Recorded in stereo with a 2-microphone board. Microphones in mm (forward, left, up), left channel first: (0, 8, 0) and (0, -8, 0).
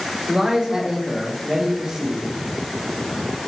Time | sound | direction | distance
0.3 | a man speaking | 55° right (ahead or behind) | 3.5 m